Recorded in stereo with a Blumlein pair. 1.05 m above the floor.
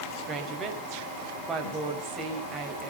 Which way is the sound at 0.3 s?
20° right.